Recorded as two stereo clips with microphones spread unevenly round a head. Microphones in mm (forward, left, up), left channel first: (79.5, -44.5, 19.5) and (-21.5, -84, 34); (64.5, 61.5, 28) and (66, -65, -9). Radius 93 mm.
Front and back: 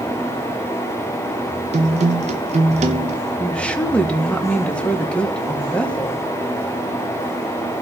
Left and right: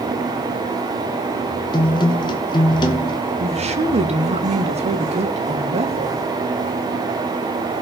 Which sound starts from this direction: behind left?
A guitar, at 1.7 s.